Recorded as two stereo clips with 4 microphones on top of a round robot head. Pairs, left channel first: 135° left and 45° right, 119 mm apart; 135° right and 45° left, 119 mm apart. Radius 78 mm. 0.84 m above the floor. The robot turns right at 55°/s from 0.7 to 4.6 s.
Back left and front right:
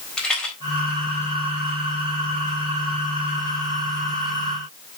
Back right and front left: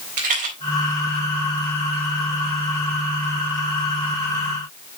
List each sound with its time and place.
0.2 s a rattle: 50° left, 4 m